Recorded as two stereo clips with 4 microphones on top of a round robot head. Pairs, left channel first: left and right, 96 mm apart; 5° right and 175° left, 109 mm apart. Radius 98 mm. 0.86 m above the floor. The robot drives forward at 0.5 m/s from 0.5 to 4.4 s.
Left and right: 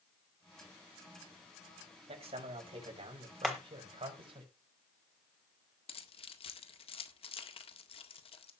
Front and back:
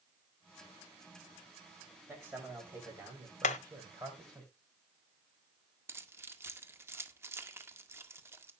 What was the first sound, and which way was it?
A man speaking, 110° right.